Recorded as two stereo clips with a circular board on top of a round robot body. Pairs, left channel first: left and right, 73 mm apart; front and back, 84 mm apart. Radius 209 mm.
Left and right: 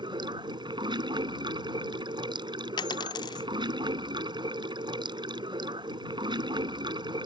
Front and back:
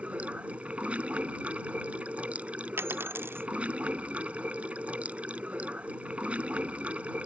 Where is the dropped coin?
115° left.